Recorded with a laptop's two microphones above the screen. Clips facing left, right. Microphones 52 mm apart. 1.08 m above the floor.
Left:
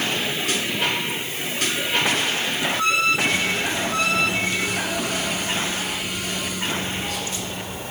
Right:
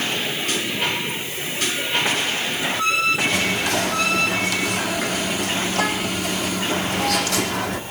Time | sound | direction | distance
3.3 | whispering | 90° right | 2.0 m